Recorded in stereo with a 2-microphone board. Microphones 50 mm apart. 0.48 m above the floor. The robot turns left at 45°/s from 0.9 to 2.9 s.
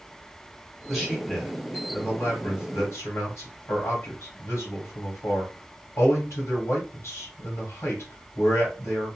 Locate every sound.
0.9 s a man speaking: 10° right (ahead or behind), 2 m; by 9.2 s 65° left (ahead or behind), 2 m